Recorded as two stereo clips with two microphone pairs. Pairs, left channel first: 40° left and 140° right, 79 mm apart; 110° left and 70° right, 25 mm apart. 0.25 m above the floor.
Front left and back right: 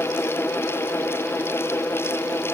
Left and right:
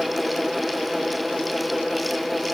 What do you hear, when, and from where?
Only background noise.